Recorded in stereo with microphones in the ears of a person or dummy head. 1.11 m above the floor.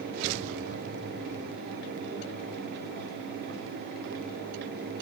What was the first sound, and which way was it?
Only background noise.